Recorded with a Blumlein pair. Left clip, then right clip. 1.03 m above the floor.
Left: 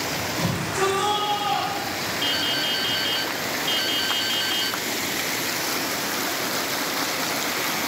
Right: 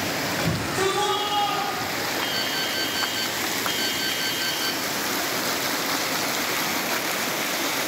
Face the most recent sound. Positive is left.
turn(degrees=65)